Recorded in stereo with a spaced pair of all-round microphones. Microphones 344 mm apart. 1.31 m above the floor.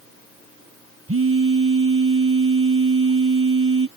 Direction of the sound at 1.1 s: 40° right (ahead or behind).